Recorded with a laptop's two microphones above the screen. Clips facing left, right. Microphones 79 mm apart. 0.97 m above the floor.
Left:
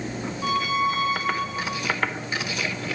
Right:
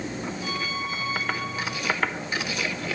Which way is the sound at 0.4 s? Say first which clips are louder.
Left 12 dB; 50° left (ahead or behind).